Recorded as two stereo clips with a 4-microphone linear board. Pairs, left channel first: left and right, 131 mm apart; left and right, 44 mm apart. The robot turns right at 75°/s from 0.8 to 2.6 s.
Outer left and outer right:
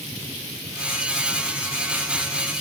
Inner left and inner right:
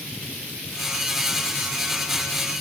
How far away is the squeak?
I don't hear a squeak.